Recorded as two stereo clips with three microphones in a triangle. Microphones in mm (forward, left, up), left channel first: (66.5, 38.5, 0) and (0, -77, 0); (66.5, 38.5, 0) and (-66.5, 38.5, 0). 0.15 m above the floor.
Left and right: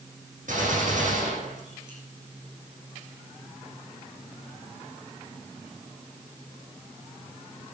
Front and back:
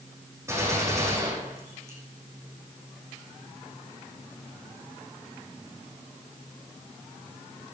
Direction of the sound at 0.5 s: 115° right.